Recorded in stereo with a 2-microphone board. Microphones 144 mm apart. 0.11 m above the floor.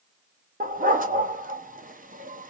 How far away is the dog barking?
About 0.7 m.